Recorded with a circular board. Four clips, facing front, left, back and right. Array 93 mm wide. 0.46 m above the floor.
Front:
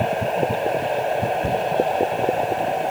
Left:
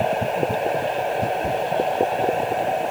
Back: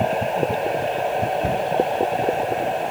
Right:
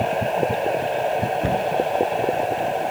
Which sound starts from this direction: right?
A cupboard door, at 1.4 s.